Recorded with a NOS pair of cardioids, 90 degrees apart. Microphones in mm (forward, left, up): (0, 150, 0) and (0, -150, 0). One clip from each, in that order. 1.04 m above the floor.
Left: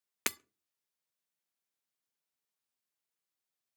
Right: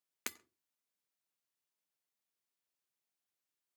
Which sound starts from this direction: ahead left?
Breaking glass, at 0.3 s.